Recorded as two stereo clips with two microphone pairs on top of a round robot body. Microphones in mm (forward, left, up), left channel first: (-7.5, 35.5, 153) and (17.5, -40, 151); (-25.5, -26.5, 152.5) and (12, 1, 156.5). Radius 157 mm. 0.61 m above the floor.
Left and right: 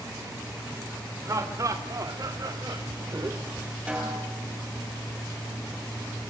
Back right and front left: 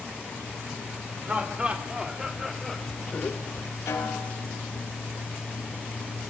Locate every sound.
1.2 s laughter: 20° right, 3.5 m; by 3.7 s 125° right, 2.0 m
3.9 s a snare drum: 145° right, 7.5 m